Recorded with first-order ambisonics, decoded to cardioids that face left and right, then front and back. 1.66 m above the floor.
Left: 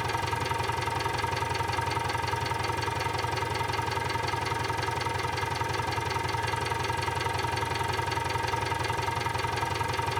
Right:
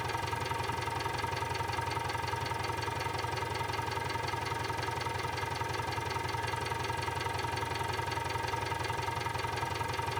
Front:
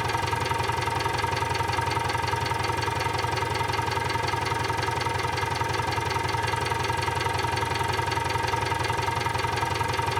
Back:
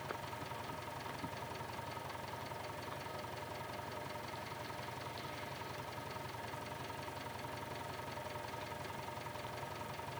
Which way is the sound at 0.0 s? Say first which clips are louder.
Left 5 dB, front 18 dB; 20° left.